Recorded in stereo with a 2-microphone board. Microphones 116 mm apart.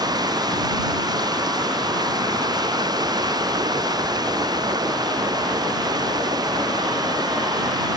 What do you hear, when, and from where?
0.0 s running water: 35° right (ahead or behind)